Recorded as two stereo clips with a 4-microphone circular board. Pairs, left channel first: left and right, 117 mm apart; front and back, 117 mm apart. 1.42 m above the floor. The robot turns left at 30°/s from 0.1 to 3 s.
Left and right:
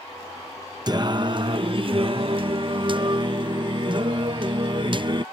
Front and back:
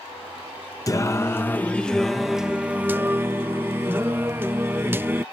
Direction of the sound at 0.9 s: 50° right.